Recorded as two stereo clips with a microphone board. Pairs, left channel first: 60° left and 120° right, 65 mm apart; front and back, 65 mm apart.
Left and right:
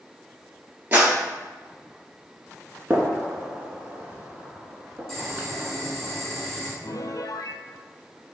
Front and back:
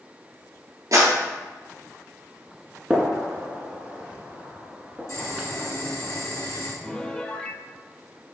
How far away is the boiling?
About 2.5 m.